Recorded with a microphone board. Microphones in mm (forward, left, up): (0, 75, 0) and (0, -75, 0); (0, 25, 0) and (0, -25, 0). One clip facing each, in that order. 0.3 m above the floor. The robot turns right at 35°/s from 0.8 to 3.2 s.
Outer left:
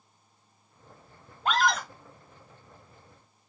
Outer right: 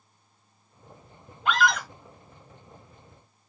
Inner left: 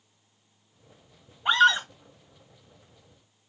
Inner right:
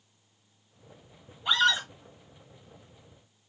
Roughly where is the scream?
Left.